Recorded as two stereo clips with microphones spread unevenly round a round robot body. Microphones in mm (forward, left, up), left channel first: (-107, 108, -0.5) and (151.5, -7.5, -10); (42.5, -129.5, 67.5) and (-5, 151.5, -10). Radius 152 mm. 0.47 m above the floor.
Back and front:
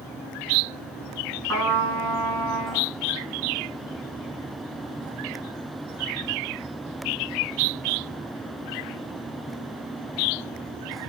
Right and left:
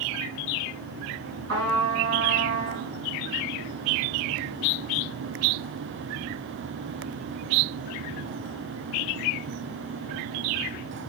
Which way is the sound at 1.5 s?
65° left.